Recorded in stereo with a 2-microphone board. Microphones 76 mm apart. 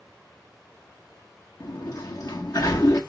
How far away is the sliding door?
About 1.6 m.